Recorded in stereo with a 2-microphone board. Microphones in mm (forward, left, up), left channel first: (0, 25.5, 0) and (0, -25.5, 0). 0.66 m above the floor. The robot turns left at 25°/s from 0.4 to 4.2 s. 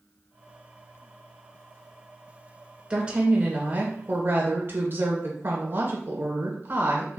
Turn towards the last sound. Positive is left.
turn(degrees=-55)